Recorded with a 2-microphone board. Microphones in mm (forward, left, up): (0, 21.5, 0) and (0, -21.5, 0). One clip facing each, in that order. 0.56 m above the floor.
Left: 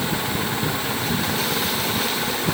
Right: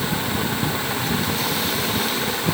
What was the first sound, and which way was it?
Only background noise.